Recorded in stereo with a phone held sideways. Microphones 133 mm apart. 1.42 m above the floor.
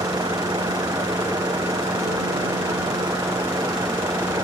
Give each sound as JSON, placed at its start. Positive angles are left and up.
{"t": 0.0, "sound": "a vehicle", "side_deg": -30}